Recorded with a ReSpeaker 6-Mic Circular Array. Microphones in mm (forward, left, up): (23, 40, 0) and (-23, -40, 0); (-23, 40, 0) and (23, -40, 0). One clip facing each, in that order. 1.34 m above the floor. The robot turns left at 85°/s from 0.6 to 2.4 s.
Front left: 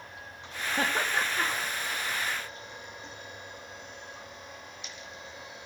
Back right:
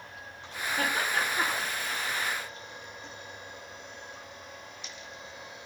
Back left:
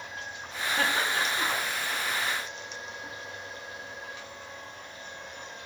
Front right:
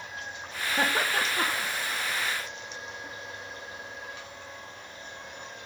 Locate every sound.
0.8 s laughter: 10° left, 1.0 m; by 1.7 s 65° right, 1.0 m